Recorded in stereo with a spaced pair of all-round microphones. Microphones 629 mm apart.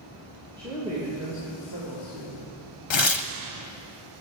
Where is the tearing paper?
50° left (ahead or behind), 0.6 m.